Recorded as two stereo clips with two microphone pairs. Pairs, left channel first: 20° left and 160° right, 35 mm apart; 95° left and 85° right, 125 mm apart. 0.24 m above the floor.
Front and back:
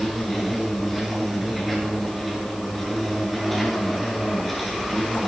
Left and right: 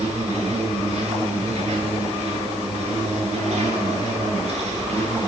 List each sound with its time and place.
0.0 s an insect: 70° right, 6 m